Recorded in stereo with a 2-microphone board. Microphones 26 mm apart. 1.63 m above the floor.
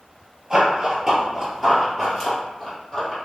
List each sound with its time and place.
0.5 s running footsteps: 15° right (ahead or behind), 1.7 m; by 3.2 s 20° left (ahead or behind), 2.5 m